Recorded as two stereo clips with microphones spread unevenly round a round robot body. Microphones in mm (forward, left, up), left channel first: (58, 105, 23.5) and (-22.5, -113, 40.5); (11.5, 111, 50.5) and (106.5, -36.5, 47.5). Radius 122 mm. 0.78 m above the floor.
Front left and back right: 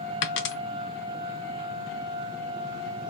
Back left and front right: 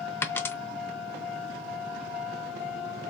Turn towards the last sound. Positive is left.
turn(degrees=50)